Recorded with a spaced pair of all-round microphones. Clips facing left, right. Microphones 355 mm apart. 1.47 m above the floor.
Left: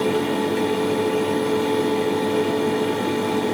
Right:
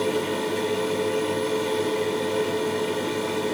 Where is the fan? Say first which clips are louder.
Left 4 dB; 70° left (ahead or behind), 0.9 m.